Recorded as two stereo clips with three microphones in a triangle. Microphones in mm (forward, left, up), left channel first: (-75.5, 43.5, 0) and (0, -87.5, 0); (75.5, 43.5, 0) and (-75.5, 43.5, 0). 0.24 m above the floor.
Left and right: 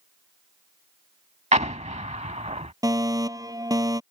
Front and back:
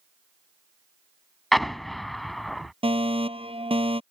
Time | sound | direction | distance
1.5 | an explosion | 90° right | ?
2.8 | a fire alarm | 125° right | ?